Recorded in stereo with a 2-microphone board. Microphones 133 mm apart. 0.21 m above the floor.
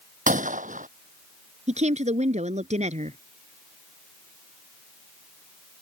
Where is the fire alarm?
No fire alarm in this recording.